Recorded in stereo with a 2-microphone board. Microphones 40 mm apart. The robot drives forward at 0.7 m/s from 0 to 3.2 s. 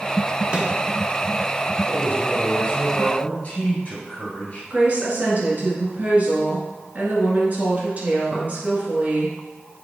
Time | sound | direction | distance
0.5 | a microwave | 25° right (ahead or behind) | 0.9 m
1.9 | a man speaking | 45° left (ahead or behind) | 1.7 m
4.7 | a woman speaking | 45° right (ahead or behind) | 1.8 m